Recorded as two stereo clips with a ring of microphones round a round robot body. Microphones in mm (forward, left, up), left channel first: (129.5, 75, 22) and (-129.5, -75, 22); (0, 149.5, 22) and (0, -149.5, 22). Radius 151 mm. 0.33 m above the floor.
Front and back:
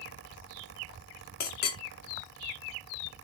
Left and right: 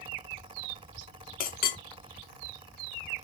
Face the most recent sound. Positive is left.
turn(degrees=55)